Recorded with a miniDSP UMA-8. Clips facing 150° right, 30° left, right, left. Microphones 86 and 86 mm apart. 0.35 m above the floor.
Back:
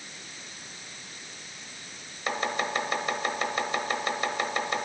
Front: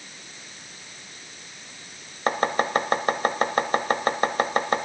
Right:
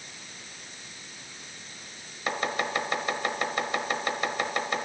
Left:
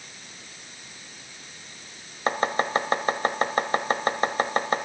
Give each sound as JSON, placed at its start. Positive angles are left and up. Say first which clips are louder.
{"t": 2.3, "sound": "chopping", "louder": "front 6 dB, left 5 dB", "azimuth_deg": 55, "distance_m": 0.9}